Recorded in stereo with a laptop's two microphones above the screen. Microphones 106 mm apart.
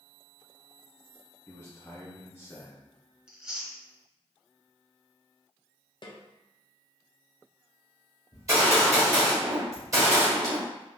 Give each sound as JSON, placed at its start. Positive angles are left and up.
{"t": 1.5, "sound": "a man speaking", "side_deg": 20, "distance_m": 0.6}
{"t": 3.3, "sound": "chewing", "side_deg": -10, "distance_m": 0.8}
{"t": 6.0, "sound": "a snare drum", "side_deg": 45, "distance_m": 0.6}
{"t": 8.3, "sound": "a gunshot", "side_deg": -30, "distance_m": 1.2}